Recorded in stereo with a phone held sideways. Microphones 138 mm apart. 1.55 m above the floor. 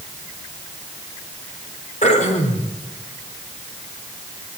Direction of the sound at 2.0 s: 60° left (ahead or behind).